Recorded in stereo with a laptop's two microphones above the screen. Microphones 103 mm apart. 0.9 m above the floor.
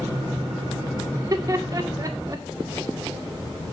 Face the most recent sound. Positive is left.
turn(degrees=-35)  # may be behind; listen again after turning